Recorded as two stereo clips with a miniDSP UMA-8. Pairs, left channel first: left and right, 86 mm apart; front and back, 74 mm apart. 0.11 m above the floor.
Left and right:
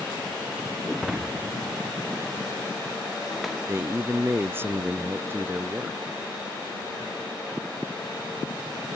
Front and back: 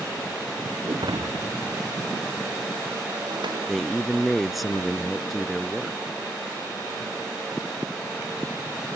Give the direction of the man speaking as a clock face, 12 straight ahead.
3 o'clock.